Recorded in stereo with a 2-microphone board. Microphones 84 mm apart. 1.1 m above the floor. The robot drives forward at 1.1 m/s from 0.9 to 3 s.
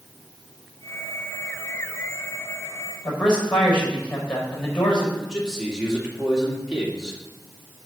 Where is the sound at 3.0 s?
15° left (ahead or behind), 4.5 m.